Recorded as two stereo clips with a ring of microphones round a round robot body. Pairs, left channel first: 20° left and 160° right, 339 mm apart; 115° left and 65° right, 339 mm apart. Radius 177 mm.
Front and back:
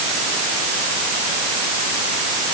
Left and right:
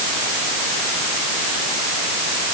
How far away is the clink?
No clink in this recording.